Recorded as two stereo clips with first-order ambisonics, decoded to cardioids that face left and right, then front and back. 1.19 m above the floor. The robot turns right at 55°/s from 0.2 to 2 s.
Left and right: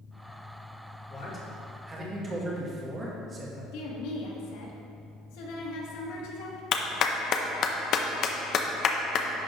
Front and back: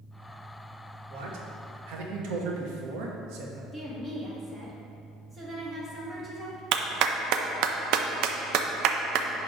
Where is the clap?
145° left, 0.6 m.